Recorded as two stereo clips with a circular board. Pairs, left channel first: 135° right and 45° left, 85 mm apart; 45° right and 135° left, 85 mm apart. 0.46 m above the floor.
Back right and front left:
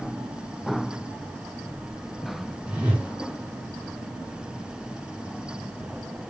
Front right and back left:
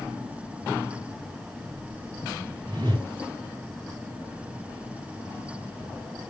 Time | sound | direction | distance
2.7 | a whoosh | 120° left | 2.5 m